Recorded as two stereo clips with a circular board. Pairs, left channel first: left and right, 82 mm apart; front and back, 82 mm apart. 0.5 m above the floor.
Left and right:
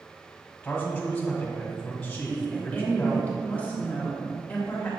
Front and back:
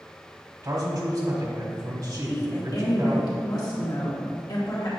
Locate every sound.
0.6 s a man speaking: 165° left, 1.5 m
2.2 s a woman speaking: 20° left, 2 m